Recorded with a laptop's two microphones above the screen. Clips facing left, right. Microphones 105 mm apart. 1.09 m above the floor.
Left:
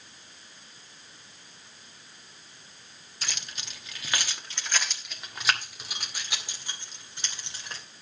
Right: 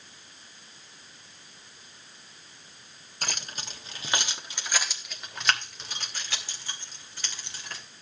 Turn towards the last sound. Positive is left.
turn(degrees=25)  # may be behind; listen again after turning